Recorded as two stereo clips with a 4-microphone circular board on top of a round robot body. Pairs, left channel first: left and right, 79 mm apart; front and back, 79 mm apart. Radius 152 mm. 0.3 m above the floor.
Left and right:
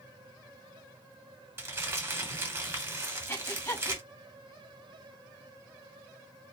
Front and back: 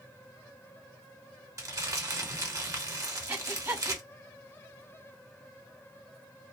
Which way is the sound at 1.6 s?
140° right.